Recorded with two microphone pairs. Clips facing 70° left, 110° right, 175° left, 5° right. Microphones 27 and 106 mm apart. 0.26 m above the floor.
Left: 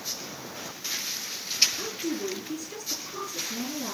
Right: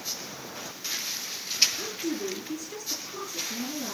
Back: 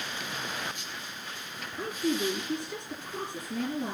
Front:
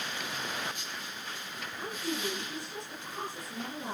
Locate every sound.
1.8 s a woman speaking: 165° left, 6 m